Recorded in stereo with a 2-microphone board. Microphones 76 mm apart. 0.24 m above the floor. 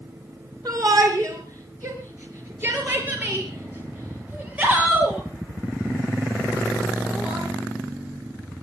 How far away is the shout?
About 3 m.